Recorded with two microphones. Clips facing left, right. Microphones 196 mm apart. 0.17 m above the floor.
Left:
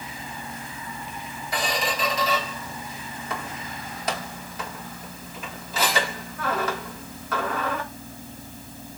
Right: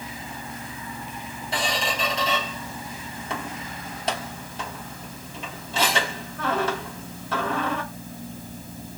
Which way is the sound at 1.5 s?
30° right (ahead or behind).